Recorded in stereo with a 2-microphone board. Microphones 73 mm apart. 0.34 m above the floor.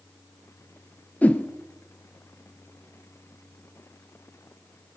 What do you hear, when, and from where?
1.2 s a whoosh: 20° left (ahead or behind), 0.9 m